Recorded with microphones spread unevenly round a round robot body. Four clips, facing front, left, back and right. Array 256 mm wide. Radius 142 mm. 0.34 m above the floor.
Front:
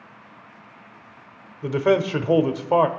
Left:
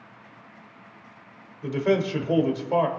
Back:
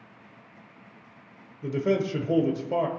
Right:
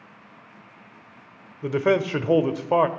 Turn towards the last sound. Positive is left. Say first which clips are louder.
# right 2 dB, front 6 dB
turn(degrees=-50)